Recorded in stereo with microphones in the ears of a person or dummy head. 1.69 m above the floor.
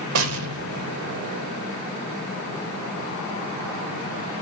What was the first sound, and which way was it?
An explosion, 85° right.